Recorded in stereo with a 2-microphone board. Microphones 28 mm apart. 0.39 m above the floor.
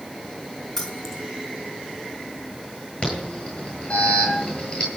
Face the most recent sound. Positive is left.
turn(degrees=40)  # may be behind; listen again after turning